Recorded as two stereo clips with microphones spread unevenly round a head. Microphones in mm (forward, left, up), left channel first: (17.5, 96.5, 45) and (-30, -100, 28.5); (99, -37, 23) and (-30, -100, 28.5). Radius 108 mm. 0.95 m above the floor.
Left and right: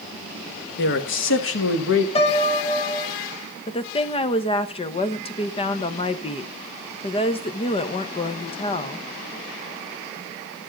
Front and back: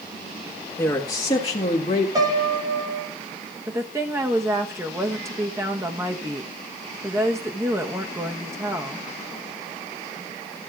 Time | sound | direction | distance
0.8 | a man speaking | 100° left | 1.5 m
2.1 | a piano | 135° left | 1.4 m
3.7 | a woman speaking | 135° left | 1.0 m